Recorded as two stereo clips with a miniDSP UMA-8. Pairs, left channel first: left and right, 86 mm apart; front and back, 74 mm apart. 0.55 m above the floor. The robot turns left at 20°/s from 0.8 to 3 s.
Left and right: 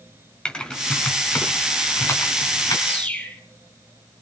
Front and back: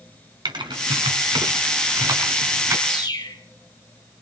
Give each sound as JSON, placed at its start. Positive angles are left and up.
{"t": 0.5, "sound": "typing on a keyboard", "azimuth_deg": 170, "distance_m": 2.5}
{"t": 2.9, "sound": "a bird", "azimuth_deg": 20, "distance_m": 4.0}